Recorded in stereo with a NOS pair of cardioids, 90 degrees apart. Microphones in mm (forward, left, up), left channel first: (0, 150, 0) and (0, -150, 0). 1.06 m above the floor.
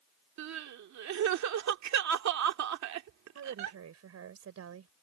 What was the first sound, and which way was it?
Crying, 65° right.